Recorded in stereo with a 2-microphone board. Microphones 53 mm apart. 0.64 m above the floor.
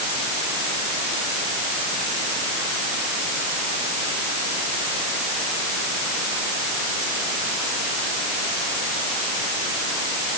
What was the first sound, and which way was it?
Only background noise.